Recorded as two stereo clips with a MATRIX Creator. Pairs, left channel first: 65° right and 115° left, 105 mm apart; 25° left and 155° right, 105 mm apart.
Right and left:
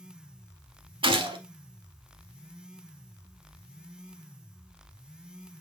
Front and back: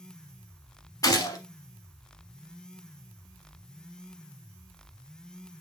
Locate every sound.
1.0 s a gunshot: 75° left, 0.7 m